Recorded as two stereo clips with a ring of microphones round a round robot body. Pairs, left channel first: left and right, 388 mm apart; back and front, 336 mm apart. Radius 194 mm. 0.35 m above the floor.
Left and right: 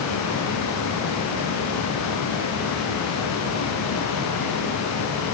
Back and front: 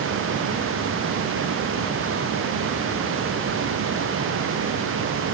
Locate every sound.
Only background noise.